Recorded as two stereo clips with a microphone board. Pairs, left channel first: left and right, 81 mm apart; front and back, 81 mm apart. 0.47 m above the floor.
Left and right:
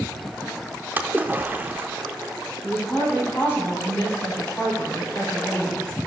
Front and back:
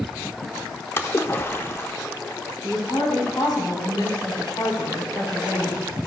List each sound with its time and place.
1.0 s a splash: 40° right, 0.6 m
2.6 s a woman speaking: 25° left, 3 m